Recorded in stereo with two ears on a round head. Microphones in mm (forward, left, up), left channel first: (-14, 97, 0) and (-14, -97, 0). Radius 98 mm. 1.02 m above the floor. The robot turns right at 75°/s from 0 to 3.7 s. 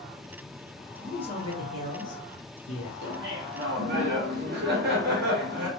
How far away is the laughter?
About 1.1 m.